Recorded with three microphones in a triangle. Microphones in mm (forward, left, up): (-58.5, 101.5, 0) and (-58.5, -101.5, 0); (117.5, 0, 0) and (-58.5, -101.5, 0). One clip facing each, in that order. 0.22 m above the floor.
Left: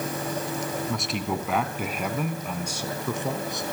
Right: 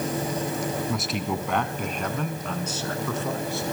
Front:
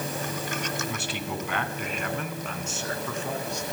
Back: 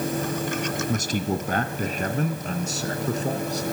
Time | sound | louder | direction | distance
0.9 | a man speaking | right 1 dB, back 7 dB | 175° right | 2 m